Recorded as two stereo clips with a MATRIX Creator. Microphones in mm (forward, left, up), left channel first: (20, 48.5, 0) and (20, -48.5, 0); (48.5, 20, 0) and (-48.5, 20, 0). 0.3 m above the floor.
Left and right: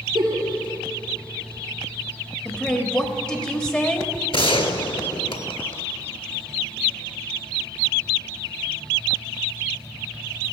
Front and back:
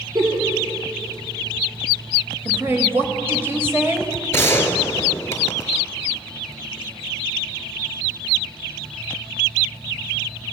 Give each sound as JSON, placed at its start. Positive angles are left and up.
{"t": 0.1, "sound": "a giggle", "azimuth_deg": -130, "distance_m": 5.0}
{"t": 2.5, "sound": "a woman speaking", "azimuth_deg": 155, "distance_m": 1.3}
{"t": 4.3, "sound": "a gunshot", "azimuth_deg": 65, "distance_m": 0.9}